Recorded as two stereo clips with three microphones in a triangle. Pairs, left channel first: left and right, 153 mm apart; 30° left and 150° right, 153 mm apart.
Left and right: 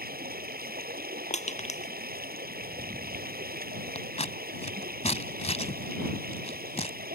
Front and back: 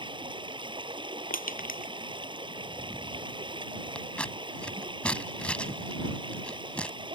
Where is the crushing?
50° left.